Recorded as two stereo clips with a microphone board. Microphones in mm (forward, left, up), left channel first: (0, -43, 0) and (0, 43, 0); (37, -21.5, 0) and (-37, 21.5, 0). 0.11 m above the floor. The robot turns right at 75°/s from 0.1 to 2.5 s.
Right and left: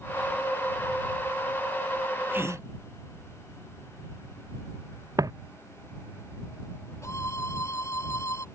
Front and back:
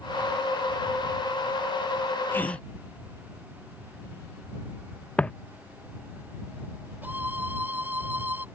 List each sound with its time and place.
2.3 s a gasp: 30° left; by 2.6 s 40° left
5.2 s footsteps: 45° left
7.0 s a violin: 140° right